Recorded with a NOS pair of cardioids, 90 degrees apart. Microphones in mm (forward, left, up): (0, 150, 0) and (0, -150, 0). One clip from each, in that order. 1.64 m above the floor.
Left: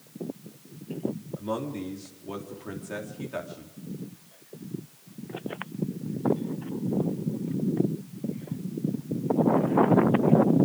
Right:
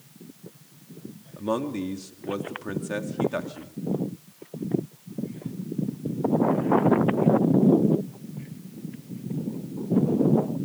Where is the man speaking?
40° right, 3.5 m.